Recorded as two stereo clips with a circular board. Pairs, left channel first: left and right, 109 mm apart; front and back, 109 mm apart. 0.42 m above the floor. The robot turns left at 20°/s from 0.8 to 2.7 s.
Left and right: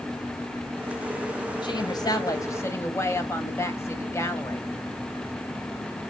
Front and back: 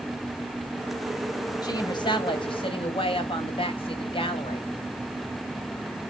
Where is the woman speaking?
50° left, 1.9 m; by 4.7 s 25° left, 1.9 m.